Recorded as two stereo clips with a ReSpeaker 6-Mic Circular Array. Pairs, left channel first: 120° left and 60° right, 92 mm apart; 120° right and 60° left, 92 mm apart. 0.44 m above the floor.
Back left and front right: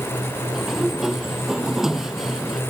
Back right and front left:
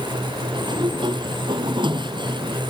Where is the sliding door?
25° left.